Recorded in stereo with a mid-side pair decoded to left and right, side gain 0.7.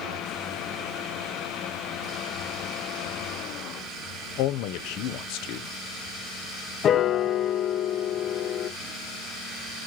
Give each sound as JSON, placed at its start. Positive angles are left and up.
{"t": 4.4, "sound": "a man speaking", "azimuth_deg": 65, "distance_m": 0.8}
{"t": 6.8, "sound": "a piano", "azimuth_deg": 40, "distance_m": 0.7}